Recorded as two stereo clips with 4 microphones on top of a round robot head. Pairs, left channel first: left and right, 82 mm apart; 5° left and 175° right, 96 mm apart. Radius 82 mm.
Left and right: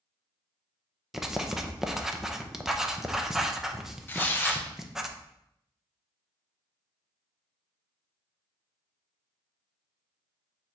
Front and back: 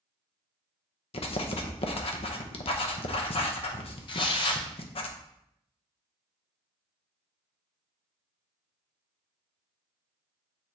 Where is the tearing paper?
30° left, 0.7 m.